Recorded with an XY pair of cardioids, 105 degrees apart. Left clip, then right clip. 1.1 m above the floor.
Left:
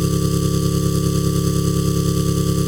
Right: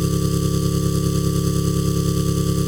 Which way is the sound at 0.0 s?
10° left.